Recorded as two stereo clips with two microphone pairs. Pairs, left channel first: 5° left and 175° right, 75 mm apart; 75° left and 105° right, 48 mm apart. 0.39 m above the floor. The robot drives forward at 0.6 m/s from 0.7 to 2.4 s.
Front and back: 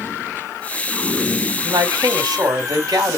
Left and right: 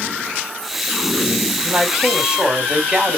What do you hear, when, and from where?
1.6 s a man speaking: straight behind, 1.9 m